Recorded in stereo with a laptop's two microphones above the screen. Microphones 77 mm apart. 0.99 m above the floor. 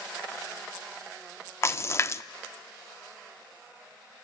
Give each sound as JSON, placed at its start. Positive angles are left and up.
{"t": 1.6, "sound": "a splash", "side_deg": 35, "distance_m": 0.5}